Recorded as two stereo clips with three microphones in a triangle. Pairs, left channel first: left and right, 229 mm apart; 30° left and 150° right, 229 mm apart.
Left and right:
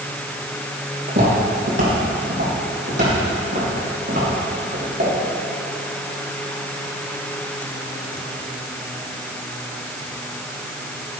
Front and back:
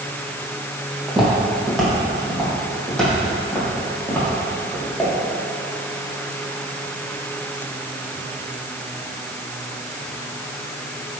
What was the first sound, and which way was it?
Footsteps, 65° right.